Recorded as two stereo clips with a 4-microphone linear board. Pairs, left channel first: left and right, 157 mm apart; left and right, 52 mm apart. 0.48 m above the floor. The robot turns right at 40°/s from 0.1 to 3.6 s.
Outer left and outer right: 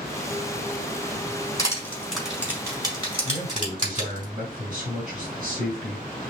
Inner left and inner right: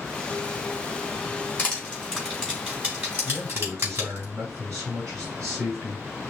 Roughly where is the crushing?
Left.